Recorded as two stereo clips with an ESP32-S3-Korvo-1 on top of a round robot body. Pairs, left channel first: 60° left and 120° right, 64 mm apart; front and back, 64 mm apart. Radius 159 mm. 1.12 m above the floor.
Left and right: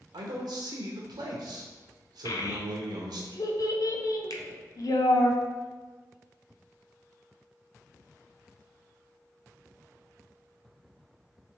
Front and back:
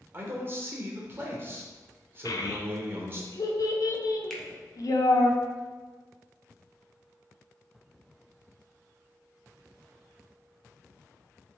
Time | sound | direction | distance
0.1 | a man speaking | 125° right | 0.8 m
2.2 | a child speaking | 30° left | 0.5 m
4.3 | a finger snap | 85° left | 0.6 m